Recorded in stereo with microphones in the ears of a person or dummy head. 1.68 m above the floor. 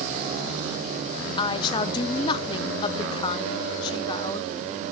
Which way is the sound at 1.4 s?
30° left (ahead or behind).